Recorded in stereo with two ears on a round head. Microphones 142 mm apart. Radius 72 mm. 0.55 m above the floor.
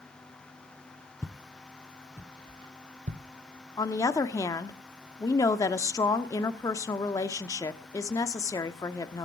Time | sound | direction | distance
1.2 | footsteps | 20° left (ahead or behind) | 1.1 m
3.8 | a woman speaking | 20° left (ahead or behind) | 1.1 m